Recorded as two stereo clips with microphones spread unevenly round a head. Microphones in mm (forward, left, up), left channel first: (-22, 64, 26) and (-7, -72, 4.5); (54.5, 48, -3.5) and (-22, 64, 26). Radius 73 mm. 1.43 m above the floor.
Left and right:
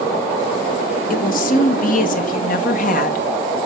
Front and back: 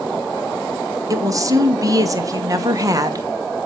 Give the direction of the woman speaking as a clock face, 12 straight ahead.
8 o'clock.